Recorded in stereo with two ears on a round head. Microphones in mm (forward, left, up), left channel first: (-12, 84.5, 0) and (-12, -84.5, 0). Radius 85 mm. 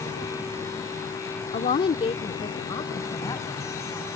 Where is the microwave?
I don't hear a microwave.